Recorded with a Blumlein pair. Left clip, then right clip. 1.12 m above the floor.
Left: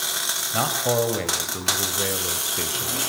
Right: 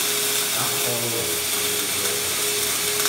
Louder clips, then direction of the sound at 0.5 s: Left 2 dB; 65° left.